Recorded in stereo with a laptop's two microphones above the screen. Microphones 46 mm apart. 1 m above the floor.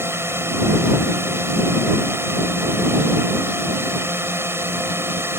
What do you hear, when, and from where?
0.0 s a drone: 75° right (ahead or behind); by 5.4 s 70° right (ahead or behind)